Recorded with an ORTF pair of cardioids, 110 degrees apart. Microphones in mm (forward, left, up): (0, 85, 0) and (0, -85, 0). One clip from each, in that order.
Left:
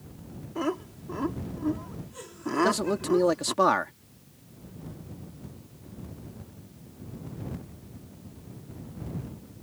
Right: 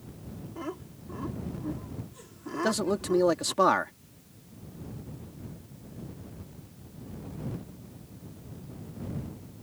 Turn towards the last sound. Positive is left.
turn(degrees=5)